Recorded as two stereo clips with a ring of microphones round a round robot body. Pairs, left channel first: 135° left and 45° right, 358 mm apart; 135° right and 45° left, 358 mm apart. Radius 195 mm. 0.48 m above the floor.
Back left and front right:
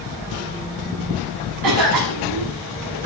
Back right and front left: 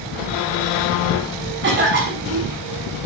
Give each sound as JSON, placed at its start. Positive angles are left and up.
{"t": 1.6, "sound": "a cough", "azimuth_deg": -20, "distance_m": 5.5}